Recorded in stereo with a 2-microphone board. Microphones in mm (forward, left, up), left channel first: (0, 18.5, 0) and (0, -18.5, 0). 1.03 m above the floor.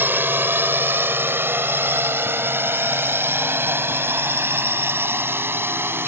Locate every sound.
0.0 s a drone: 65° right (ahead or behind); by 6.1 s 80° right